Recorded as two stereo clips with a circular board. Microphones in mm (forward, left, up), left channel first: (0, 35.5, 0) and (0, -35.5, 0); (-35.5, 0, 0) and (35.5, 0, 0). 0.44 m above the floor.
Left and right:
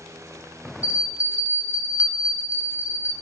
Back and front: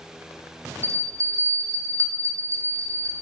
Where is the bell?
30° right, 1.5 m.